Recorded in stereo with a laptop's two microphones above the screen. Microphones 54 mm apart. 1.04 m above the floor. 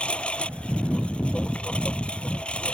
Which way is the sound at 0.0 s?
20° left (ahead or behind).